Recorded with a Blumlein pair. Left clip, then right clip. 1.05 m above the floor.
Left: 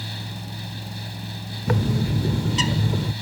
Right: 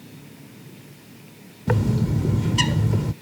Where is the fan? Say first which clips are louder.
Left 12 dB; 50° left.